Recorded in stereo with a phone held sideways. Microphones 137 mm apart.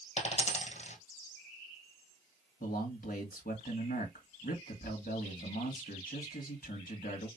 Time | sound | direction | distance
0.2 | a dropped coin | 50° left (ahead or behind) | 2 m
2.6 | a man speaking | 80° left | 2 m